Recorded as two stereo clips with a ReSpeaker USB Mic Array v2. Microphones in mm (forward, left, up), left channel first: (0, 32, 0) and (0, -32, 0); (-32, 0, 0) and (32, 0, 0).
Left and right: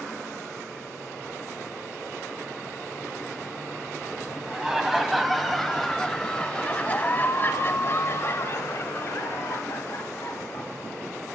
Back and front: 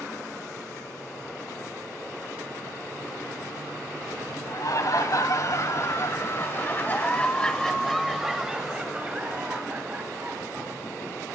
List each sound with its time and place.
4.5 s laughter: 175° right, 2.0 m; by 10.8 s 50° left, 2.5 m